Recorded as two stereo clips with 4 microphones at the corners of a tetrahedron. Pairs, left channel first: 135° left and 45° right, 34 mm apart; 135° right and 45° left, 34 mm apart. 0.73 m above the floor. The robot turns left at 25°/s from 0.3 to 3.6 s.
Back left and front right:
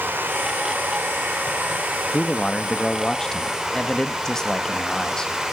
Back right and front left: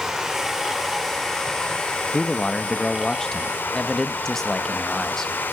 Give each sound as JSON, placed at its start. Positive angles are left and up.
{"t": 0.0, "sound": "running water", "azimuth_deg": -35, "distance_m": 2.5}
{"t": 2.1, "sound": "a man speaking", "azimuth_deg": -155, "distance_m": 0.9}